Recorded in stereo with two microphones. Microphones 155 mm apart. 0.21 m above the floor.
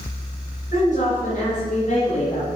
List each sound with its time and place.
0.7 s a woman speaking: 55° left (ahead or behind), 2.5 m; by 2.5 s 40° left (ahead or behind), 1.7 m